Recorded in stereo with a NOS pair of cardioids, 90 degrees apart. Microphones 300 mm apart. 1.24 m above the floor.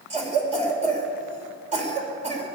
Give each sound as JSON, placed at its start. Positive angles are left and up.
{"t": 0.1, "sound": "a cough", "azimuth_deg": -25, "distance_m": 4.5}